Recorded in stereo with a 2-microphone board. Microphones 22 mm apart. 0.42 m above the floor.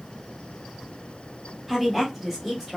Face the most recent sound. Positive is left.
turn(degrees=-15)  # may be behind; listen again after turning